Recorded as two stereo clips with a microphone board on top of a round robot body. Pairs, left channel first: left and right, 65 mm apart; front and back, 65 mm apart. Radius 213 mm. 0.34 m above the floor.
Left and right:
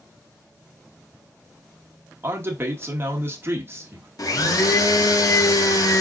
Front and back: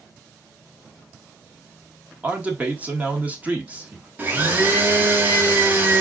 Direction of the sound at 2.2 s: 125° right.